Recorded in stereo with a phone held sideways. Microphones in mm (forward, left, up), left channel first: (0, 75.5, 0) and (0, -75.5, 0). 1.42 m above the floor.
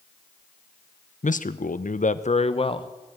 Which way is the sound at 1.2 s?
55° left (ahead or behind).